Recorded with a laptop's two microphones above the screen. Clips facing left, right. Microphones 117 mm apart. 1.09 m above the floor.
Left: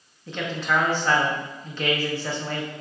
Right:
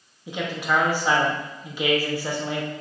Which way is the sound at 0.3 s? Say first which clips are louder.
Right 1 dB; 10° right (ahead or behind).